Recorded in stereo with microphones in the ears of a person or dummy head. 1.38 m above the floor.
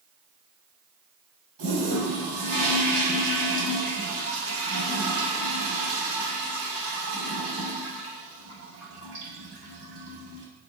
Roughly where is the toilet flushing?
Right.